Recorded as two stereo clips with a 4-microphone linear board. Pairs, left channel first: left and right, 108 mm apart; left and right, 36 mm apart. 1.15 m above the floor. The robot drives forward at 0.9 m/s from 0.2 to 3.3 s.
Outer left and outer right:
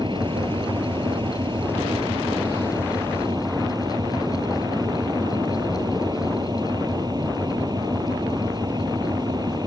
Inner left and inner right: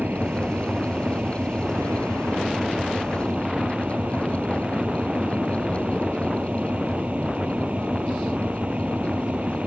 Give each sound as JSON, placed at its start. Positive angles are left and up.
{"t": 0.0, "sound": "an engine running", "side_deg": -45}